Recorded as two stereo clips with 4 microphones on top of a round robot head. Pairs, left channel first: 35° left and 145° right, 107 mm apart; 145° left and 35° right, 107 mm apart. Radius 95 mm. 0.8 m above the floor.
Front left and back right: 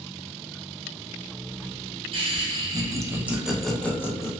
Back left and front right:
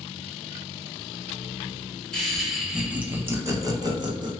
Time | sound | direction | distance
2.1 | laughter | 130° right | 1.0 m